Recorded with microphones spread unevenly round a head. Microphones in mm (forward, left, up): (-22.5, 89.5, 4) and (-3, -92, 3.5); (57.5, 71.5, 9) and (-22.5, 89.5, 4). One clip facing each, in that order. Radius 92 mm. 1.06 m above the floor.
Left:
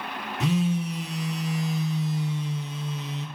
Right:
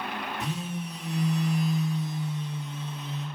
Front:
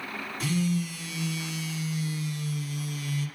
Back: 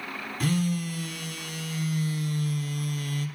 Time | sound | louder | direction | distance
0.4 | a phone buzzing | left 14 dB, back 1 dB | 125° left | 1.0 m